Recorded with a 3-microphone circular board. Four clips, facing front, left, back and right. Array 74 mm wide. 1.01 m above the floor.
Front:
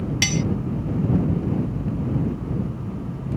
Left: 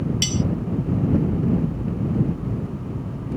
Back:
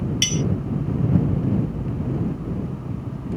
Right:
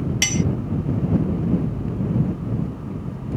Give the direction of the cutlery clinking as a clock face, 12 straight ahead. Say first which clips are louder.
Right 2 dB, front 4 dB; 1 o'clock.